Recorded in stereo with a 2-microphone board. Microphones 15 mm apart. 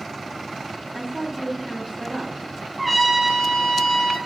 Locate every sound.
0.9 s a woman speaking: 65° right (ahead or behind), 3.5 m
2.8 s a trumpet: 5° right (ahead or behind), 1.9 m